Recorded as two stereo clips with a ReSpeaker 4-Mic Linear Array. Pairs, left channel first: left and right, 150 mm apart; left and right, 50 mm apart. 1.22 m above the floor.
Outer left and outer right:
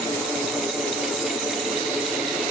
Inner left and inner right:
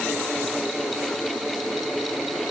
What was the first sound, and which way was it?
Only background noise.